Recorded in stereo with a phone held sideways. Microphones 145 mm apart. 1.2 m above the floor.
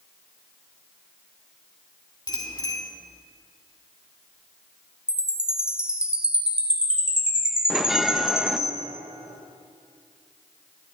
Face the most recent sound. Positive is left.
turn(degrees=0)  # may be behind; listen again after turning